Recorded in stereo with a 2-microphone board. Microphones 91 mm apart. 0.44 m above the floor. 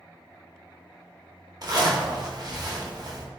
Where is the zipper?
45° right (ahead or behind), 0.6 m.